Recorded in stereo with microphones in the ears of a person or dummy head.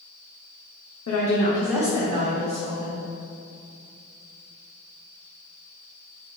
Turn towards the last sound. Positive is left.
turn(degrees=-45)  # may be behind; listen again after turning